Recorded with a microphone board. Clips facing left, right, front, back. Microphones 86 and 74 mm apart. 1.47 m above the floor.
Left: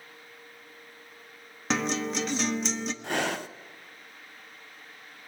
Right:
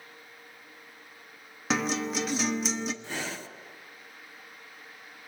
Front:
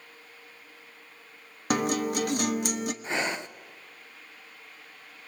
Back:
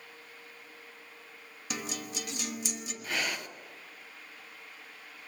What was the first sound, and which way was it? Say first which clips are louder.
A guitar: even, front 13 dB; 5° right.